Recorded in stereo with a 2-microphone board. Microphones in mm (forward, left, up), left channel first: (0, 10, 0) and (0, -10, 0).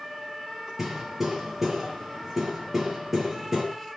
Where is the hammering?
15° right (ahead or behind), 6 m.